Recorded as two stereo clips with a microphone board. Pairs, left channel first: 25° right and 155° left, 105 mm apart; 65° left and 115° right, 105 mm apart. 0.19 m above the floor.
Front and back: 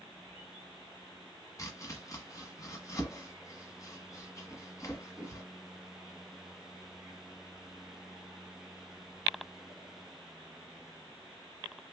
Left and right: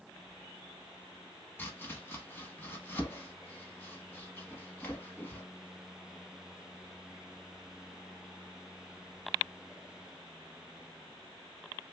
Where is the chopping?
15° left, 1.0 m.